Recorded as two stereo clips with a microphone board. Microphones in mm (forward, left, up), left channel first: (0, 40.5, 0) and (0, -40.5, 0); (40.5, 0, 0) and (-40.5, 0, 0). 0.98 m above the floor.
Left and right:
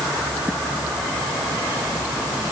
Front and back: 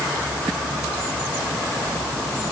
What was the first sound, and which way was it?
Only background noise.